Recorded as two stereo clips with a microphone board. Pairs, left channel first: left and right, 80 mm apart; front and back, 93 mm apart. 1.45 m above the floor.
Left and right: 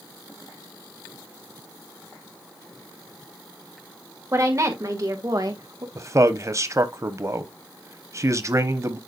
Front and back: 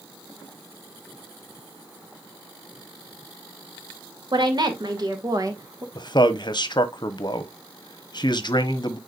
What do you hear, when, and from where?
4.3 s a woman speaking: 140° right, 2.5 m; by 5.8 s 120° right, 1.6 m
6.0 s a man speaking: 40° right, 1.0 m